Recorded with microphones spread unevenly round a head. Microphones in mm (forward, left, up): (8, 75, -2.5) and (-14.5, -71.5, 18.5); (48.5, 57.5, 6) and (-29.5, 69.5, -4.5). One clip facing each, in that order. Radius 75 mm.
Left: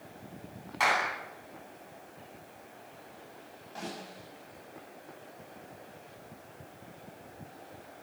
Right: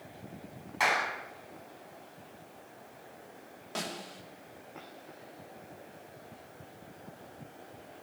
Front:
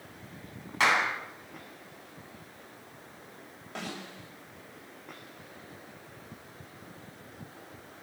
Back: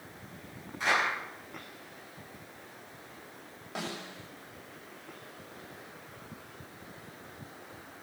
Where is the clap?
10° right, 10 m.